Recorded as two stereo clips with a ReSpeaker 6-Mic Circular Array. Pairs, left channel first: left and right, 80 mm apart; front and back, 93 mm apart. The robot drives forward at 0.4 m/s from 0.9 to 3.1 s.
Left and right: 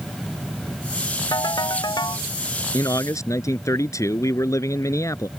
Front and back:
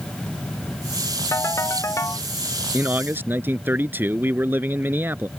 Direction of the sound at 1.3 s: 55° left.